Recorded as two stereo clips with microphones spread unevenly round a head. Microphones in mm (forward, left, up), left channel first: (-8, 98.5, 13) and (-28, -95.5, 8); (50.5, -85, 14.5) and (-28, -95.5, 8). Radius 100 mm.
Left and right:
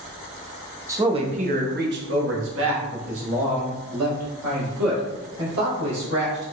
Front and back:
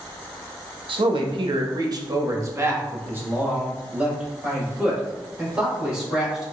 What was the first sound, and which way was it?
A man speaking, 170° right.